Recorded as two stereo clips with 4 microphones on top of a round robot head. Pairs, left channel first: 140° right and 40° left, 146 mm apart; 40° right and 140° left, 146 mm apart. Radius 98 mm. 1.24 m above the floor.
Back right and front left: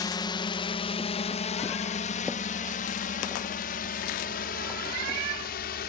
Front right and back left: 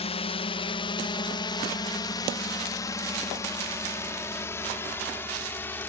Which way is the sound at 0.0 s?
80° right.